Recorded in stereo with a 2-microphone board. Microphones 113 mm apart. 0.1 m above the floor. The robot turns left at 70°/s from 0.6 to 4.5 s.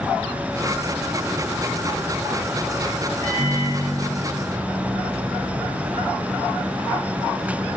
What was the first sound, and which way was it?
A microwave, 145° left.